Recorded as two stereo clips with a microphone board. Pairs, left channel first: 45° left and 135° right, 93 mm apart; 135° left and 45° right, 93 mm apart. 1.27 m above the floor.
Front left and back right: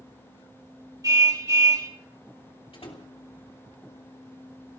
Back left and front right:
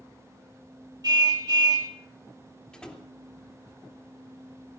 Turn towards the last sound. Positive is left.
turn(degrees=55)